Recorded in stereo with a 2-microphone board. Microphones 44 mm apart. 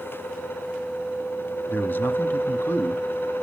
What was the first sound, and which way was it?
A man speaking, 45° left (ahead or behind).